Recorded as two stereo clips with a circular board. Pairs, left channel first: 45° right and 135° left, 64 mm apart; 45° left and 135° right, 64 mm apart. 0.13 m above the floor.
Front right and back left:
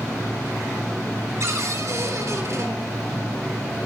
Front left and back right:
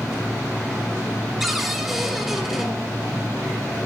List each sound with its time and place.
1.4 s a cupboard door: 140° left, 3 m